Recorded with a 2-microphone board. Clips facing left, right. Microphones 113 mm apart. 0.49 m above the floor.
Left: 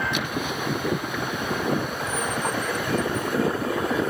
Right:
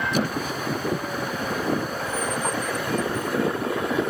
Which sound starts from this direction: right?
A squeak, at 0.1 s.